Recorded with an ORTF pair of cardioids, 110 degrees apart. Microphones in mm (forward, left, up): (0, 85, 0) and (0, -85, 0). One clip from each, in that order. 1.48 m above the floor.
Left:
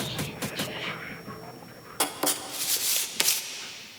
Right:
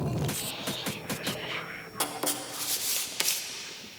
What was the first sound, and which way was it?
Writing, 15° left.